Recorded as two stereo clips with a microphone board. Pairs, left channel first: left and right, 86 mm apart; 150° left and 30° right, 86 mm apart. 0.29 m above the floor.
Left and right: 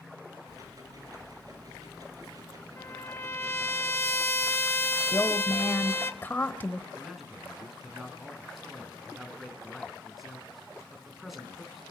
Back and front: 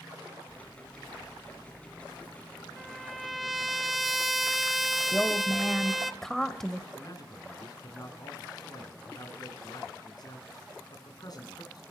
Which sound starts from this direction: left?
A woman speaking, at 5.1 s.